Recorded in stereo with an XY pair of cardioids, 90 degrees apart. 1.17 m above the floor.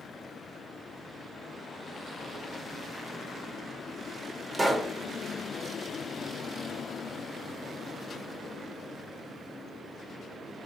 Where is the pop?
15° right, 0.8 m.